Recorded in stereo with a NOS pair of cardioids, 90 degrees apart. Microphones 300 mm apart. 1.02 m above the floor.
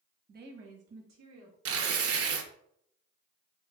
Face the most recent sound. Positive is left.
turn(degrees=-50)